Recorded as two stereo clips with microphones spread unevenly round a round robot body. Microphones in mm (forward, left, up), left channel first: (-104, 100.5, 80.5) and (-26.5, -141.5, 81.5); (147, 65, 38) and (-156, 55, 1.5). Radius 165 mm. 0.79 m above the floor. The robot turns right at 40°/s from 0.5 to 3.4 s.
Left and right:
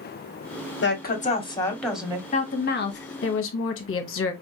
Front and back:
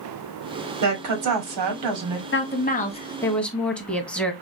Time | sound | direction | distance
0.8 | a woman speaking | 155° left | 1.8 m
2.3 | a woman speaking | 50° left | 1.1 m